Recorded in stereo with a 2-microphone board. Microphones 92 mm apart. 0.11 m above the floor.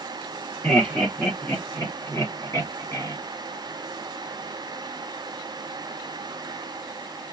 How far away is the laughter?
About 2.5 m.